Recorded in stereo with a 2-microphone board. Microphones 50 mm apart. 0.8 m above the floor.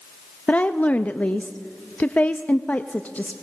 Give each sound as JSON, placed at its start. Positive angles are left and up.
{"t": 0.5, "sound": "a woman speaking", "side_deg": 30, "distance_m": 0.7}